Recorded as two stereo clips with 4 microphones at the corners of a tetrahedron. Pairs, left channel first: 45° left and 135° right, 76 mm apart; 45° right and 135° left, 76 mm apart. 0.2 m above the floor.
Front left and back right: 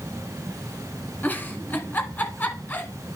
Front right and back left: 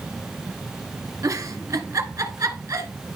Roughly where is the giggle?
Left.